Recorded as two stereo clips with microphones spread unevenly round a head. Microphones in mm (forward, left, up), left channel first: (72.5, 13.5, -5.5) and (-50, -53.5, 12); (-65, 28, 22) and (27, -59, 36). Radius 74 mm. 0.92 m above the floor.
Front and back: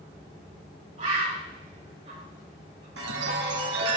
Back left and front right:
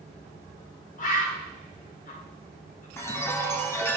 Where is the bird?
155° left, 4 m.